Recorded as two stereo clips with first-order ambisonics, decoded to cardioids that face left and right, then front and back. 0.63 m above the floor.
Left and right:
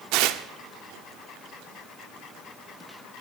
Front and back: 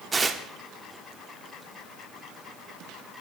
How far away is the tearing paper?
About 0.8 m.